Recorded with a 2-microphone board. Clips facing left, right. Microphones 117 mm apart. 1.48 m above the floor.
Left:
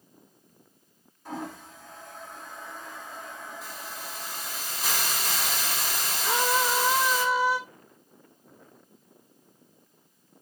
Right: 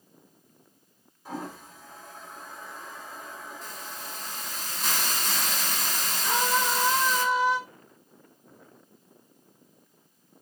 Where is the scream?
10° left (ahead or behind), 6.5 m.